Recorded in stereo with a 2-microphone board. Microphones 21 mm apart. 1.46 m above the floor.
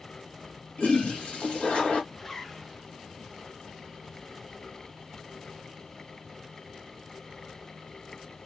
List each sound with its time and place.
0.8 s a toilet flushing: 85° left, 2.5 m
2.1 s a zipper: 20° left (ahead or behind), 0.6 m